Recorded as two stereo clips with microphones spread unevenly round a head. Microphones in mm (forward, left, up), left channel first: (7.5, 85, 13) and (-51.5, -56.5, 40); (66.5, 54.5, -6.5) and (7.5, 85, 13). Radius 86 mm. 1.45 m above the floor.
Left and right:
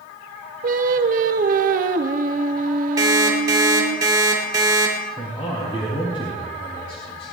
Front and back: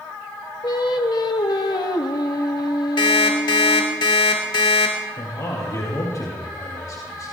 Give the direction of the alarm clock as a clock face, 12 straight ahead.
2 o'clock.